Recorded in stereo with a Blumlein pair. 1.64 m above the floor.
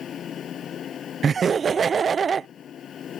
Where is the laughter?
20° right.